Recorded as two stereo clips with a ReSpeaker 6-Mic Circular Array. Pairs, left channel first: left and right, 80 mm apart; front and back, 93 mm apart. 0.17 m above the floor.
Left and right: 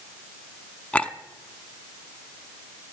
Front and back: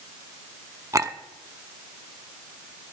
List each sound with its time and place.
0.9 s a clink: 155° left, 0.7 m